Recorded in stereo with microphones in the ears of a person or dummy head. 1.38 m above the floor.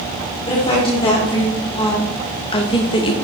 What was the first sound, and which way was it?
A woman speaking, 25° left (ahead or behind).